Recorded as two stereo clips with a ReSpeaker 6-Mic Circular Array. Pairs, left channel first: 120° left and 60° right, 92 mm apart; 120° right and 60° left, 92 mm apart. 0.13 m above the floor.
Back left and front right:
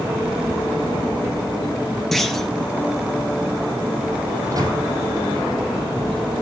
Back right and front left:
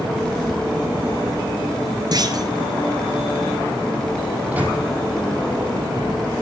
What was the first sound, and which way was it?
A clunk, 35° left.